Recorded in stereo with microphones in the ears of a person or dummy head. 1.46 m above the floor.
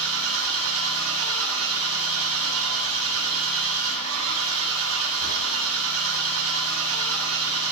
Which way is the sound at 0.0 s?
70° right (ahead or behind).